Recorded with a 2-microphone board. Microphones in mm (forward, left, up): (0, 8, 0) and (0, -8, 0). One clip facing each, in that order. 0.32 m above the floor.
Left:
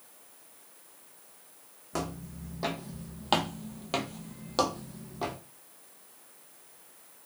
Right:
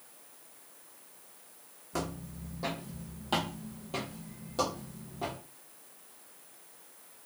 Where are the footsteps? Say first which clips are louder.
Left 1 dB; 25° left (ahead or behind), 1.1 m; by 5.4 s 30° left (ahead or behind), 0.9 m.